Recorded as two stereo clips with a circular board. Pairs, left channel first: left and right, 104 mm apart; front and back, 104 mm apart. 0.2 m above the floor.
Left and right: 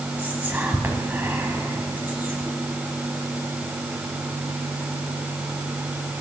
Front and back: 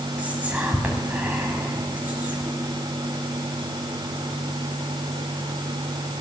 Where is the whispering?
130° right, 1.7 m.